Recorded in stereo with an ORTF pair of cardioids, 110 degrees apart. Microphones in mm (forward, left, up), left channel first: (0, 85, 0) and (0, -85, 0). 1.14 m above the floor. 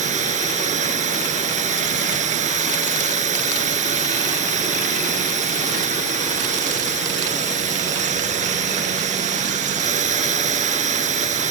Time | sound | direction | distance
0.0 | a drone | 45° right | ?